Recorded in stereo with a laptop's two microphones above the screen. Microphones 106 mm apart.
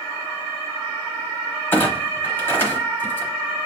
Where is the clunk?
20° left (ahead or behind), 0.9 m.